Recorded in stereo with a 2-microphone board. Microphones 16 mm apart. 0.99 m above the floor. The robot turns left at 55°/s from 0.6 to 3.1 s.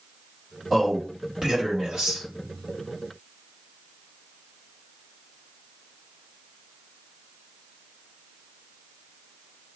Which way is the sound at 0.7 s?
5° right.